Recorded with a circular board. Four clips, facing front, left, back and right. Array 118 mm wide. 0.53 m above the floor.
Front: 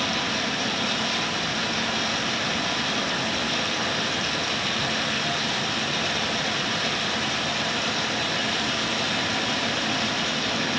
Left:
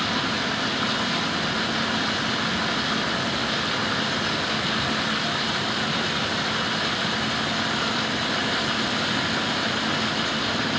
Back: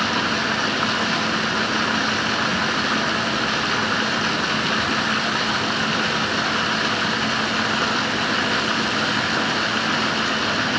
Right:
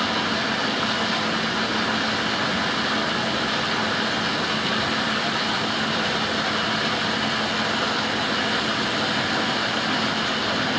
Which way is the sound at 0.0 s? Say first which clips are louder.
Right 2 dB, back 5 dB; 175° right.